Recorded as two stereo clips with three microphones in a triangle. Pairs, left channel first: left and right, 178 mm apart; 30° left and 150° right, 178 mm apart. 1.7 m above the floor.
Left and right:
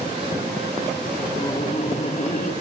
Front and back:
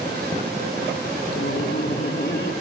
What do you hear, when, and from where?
1.4 s laughter: 30° left, 3 m; by 2.5 s 55° left, 3.5 m